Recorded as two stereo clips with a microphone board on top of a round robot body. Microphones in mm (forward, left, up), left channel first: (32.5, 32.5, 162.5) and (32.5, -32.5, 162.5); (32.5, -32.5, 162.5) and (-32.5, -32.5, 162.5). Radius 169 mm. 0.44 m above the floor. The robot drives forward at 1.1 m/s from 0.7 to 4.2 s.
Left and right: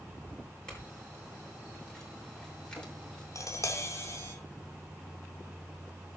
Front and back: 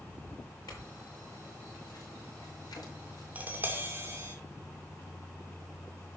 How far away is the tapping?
About 2.5 m.